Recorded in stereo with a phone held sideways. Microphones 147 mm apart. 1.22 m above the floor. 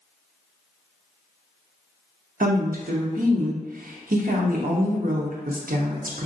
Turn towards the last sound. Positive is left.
turn(degrees=-70)  # may be behind; listen again after turning